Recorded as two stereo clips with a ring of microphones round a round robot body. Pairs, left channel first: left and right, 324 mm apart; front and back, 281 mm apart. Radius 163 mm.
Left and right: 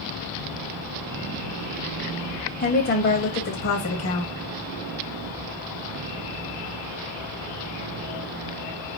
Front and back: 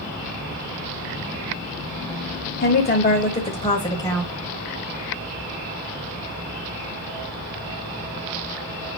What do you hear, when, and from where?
2.6 s a woman speaking: 35° left, 1.6 m; by 4.3 s 80° left, 1.7 m